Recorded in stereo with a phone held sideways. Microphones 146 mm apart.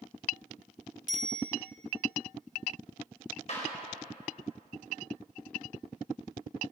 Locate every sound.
1.1 s a bicycle bell: 65° right (ahead or behind), 5.5 m
3.5 s a clap: 50° left (ahead or behind), 4.5 m